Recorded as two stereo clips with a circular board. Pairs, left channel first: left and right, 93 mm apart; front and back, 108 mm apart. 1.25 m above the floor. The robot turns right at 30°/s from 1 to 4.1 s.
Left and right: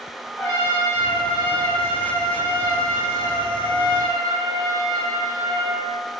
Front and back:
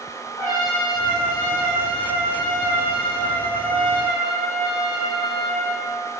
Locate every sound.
0.4 s a trumpet: straight ahead, 1.8 m; by 6.0 s 95° left, 1.8 m